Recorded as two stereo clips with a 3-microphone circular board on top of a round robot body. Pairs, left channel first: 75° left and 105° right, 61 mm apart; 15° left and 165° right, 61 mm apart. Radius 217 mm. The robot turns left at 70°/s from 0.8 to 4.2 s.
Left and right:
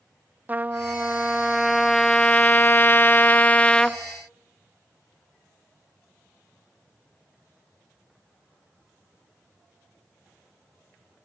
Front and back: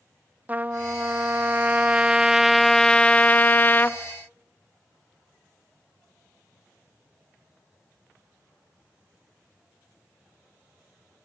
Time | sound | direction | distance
0.5 | a trumpet | 135° right | 1.2 m